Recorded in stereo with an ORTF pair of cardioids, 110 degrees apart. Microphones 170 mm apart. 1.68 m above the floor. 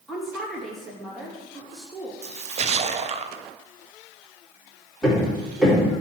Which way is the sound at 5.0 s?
Straight ahead.